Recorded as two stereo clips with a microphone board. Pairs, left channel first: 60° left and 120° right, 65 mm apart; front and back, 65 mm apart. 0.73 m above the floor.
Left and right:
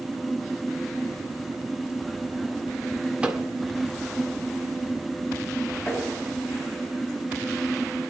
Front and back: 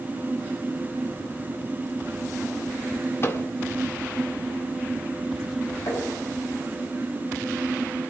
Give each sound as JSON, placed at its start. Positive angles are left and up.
{"t": 3.2, "sound": "a microwave", "azimuth_deg": -50, "distance_m": 1.7}
{"t": 5.9, "sound": "tapping", "azimuth_deg": -35, "distance_m": 8.5}